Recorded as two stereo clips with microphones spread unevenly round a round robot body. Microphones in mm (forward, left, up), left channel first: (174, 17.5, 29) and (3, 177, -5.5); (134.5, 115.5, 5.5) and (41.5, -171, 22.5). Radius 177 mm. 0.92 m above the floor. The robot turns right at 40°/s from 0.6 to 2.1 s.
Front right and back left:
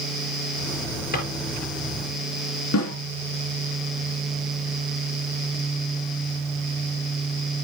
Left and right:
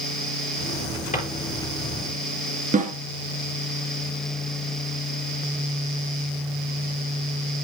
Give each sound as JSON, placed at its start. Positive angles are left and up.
{"t": 1.1, "sound": "a drawer", "azimuth_deg": 5, "distance_m": 5.0}
{"t": 2.7, "sound": "a snare drum", "azimuth_deg": -45, "distance_m": 2.5}